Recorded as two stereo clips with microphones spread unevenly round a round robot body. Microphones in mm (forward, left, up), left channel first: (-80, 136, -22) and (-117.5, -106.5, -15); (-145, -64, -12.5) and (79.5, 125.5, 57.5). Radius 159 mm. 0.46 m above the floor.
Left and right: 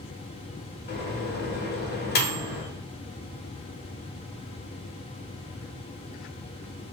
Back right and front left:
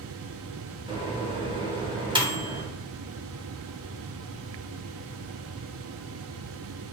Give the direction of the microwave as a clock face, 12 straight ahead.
8 o'clock.